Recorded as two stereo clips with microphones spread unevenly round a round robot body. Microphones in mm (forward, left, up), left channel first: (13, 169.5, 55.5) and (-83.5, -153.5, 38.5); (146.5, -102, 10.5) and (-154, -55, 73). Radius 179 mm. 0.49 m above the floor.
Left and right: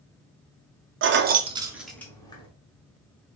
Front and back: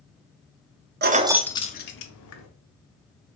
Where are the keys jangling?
130° right, 0.5 m; by 2.5 s 5° right, 0.9 m.